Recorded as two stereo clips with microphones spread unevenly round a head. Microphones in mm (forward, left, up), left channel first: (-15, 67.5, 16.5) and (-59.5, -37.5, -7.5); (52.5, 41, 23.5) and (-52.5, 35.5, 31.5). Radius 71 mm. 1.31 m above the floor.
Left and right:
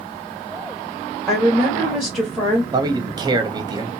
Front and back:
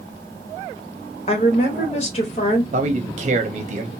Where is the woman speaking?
25° right, 1.3 m.